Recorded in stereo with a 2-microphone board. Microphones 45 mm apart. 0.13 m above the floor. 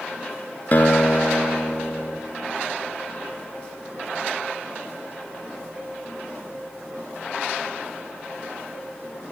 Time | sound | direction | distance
0.7 | a guitar | 45° left (ahead or behind) | 0.7 m